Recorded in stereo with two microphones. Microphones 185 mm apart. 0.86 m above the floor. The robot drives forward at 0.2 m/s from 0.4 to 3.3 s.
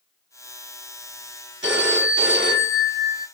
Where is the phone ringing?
80° right, 0.7 m; by 3.2 s 65° right (ahead or behind), 0.8 m.